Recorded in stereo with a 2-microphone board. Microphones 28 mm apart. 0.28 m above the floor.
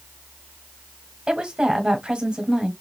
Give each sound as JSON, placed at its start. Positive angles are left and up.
{"t": 1.3, "sound": "a woman speaking", "side_deg": -30, "distance_m": 1.2}